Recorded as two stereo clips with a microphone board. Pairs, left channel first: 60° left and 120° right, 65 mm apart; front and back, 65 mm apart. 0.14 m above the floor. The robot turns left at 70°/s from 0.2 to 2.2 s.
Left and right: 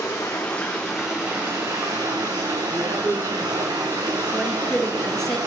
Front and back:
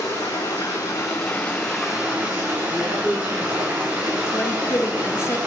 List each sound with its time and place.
0.0 s running water: 25° left, 3 m; by 5.5 s 115° right, 3 m
2.7 s a man speaking: 115° right, 6.5 m
4.3 s a woman speaking: 20° right, 1.6 m